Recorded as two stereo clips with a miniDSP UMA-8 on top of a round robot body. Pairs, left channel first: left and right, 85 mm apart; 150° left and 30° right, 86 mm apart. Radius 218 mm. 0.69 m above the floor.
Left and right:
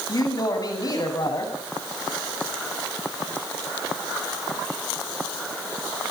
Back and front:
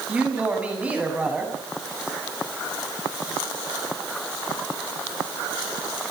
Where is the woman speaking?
45° left, 8 m.